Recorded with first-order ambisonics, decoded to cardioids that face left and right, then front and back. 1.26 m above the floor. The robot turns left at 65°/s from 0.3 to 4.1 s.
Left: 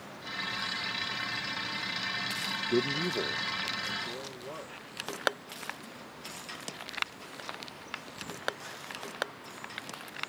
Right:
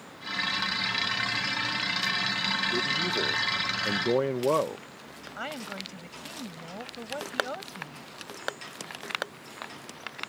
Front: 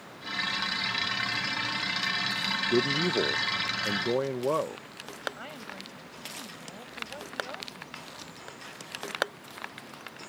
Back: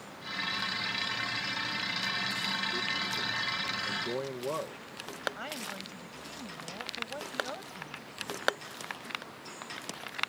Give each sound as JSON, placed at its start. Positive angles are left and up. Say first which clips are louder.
{"t": 2.7, "sound": "a man speaking", "louder": "right 3 dB, front 6 dB", "azimuth_deg": 25}
{"t": 5.4, "sound": "a woman speaking", "louder": "right 6 dB, back 2 dB", "azimuth_deg": -95}